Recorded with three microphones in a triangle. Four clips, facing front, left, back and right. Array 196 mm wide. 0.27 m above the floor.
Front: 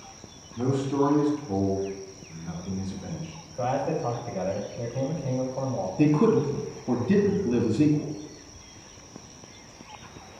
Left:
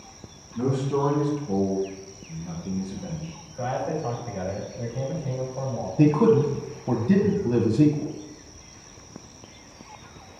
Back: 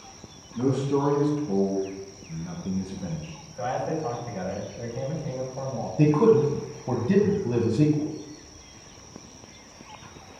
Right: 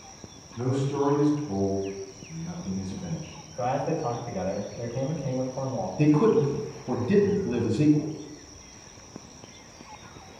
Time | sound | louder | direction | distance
0.6 | a man speaking | left 2 dB, back 1 dB | 145° left | 2.5 m
3.5 | a man speaking | right 1 dB, front 1 dB | 35° right | 1.5 m
6.0 | a man speaking | left 2 dB, back 3 dB | 120° left | 1.4 m